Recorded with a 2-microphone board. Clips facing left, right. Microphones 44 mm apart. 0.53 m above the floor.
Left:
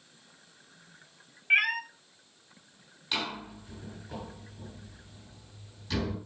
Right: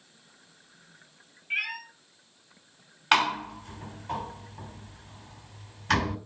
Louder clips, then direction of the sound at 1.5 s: Left 7 dB; 55° left (ahead or behind).